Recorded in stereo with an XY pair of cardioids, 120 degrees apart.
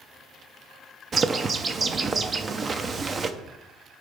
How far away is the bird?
About 0.7 m.